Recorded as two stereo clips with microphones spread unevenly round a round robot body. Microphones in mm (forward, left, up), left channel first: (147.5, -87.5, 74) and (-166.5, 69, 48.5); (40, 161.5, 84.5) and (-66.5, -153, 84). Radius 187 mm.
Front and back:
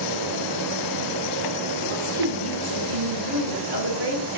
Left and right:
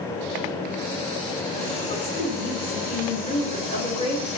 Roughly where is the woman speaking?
Behind left.